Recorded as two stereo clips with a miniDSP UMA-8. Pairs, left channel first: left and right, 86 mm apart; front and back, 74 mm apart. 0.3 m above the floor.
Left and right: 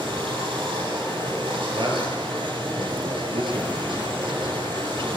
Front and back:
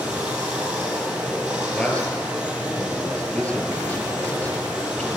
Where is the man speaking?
75° right, 6 m.